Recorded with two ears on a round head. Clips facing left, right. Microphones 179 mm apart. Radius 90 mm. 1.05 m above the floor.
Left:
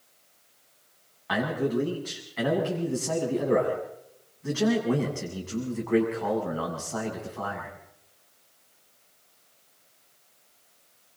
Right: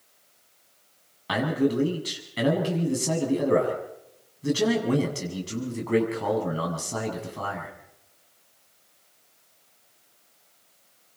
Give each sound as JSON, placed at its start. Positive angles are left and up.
{"t": 1.3, "sound": "a man speaking", "side_deg": -50, "distance_m": 7.5}